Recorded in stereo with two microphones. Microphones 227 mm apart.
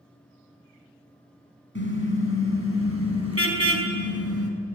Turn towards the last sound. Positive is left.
turn(degrees=75)  # may be behind; listen again after turning